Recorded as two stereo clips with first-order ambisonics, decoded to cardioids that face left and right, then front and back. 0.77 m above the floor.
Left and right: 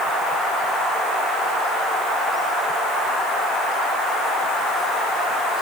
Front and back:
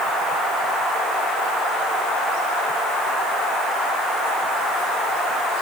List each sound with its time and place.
Only background noise.